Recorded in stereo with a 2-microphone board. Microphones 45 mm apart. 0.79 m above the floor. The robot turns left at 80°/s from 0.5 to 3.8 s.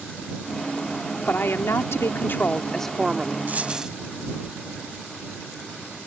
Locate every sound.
1.3 s a woman speaking: 135° left; by 3.4 s 35° right
3.5 s a dropped coin: 40° right (ahead or behind); by 3.9 s 15° right (ahead or behind)